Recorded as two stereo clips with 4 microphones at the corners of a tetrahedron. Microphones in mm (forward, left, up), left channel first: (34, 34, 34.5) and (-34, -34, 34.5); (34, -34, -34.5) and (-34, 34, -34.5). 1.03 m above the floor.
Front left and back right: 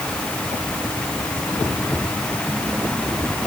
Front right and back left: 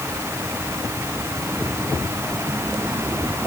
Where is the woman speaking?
I don't hear a woman speaking.